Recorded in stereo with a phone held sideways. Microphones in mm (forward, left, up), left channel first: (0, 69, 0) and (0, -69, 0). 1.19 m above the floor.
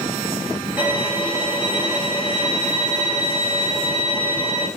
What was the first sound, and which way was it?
A violin, 15° right (ahead or behind).